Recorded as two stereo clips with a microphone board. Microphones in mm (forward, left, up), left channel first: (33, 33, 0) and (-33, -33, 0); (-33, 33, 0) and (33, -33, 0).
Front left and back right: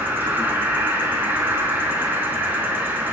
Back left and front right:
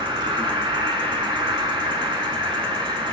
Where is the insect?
65° right, 0.7 m.